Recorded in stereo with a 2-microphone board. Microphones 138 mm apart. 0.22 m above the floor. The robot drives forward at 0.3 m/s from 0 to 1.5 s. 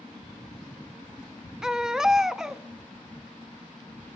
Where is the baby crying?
5° right (ahead or behind), 0.6 m.